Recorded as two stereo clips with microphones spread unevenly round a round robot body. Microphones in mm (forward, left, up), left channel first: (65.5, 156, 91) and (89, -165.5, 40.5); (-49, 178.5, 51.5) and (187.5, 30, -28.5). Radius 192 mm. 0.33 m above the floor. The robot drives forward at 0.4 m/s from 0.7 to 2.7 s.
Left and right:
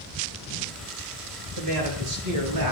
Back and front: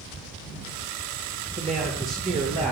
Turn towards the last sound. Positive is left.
turn(degrees=-110)